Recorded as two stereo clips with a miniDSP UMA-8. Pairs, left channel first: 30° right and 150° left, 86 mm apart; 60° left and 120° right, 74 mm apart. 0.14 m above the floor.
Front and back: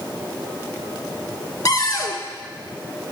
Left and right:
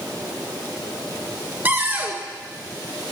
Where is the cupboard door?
60° right, 0.5 m.